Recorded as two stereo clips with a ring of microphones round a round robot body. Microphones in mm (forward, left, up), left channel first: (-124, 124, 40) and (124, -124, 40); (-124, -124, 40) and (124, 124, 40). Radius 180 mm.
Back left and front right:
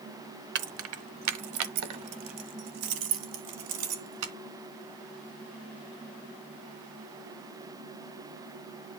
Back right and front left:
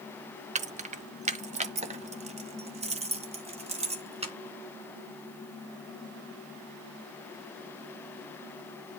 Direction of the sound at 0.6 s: 15° right.